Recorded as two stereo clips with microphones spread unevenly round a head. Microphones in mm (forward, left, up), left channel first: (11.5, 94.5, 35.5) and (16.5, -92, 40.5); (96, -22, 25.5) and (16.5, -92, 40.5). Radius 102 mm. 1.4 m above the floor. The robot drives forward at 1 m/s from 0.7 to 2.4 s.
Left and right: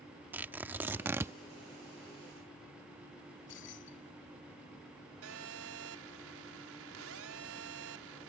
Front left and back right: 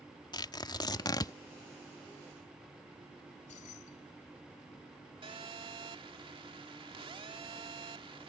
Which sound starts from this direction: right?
A phone buzzing, at 5.2 s.